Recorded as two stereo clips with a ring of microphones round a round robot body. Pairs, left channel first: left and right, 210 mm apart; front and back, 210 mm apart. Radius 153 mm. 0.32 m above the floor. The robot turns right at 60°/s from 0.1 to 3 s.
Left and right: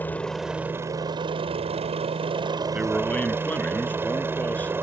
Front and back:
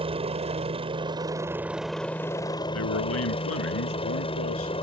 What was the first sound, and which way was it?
A helicopter, 165° left.